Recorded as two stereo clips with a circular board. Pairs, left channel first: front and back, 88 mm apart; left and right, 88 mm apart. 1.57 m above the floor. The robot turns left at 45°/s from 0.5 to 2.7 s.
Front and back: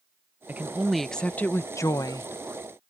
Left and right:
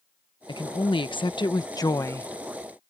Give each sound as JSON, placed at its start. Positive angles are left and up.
{"t": 0.5, "sound": "a woman speaking", "azimuth_deg": 110}